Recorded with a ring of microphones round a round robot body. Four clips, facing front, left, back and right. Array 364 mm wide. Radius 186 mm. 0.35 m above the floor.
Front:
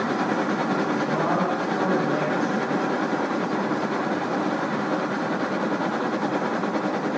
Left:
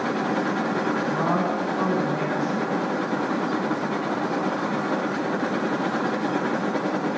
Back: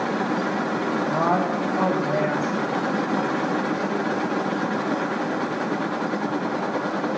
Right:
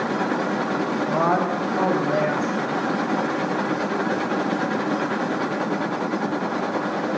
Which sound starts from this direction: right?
A woman speaking, at 1.1 s.